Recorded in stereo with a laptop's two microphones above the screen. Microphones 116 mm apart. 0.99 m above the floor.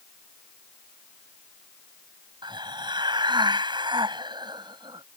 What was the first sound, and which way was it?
A hiss, 40° right (ahead or behind).